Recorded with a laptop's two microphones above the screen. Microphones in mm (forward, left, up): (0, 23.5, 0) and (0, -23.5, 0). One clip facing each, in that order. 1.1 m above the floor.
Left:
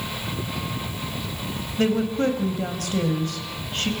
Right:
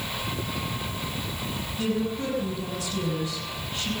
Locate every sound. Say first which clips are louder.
1.8 s a woman speaking: left 6 dB; 50° left (ahead or behind), 5 m